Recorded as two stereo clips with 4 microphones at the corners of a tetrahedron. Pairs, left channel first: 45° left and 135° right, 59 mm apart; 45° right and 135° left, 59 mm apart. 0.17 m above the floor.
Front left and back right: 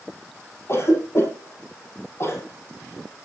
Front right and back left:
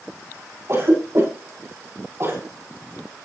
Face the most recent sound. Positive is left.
turn(degrees=90)